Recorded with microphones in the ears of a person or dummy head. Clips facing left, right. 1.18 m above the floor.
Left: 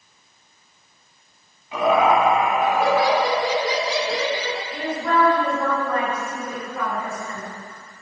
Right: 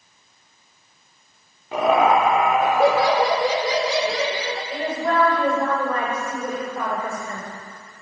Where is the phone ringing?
No phone ringing in this recording.